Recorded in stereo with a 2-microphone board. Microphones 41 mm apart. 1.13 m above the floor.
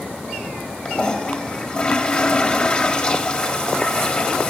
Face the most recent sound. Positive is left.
turn(degrees=25)  # may be behind; listen again after turning